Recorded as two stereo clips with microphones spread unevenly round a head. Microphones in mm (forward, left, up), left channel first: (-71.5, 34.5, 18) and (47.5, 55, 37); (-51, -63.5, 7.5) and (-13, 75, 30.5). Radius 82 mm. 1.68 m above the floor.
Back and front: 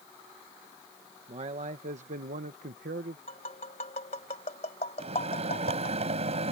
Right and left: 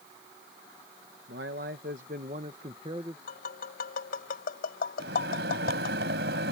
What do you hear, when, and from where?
1.3 s a man speaking: 45° left; by 3.2 s 5° left
3.3 s tapping: 120° right
5.0 s a microwave: 45° left